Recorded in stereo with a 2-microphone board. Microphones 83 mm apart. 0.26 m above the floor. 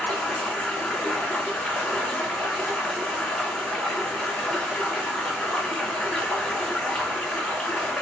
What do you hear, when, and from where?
0.0 s running water: 10° left (ahead or behind), 1.4 m